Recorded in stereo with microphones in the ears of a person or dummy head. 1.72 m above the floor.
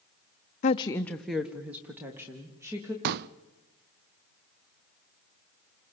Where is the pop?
55° right (ahead or behind), 0.6 m.